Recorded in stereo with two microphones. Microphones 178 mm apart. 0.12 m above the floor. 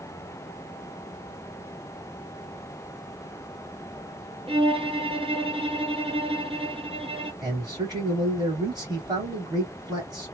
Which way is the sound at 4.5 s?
30° right (ahead or behind).